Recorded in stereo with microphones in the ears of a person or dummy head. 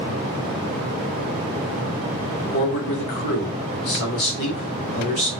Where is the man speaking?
55° left (ahead or behind), 1.2 m.